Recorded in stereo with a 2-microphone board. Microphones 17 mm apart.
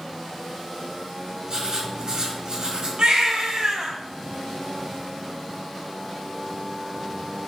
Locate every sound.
1.5 s writing: 45° right (ahead or behind), 3 m
3.0 s a baby crying: 70° right (ahead or behind), 2.5 m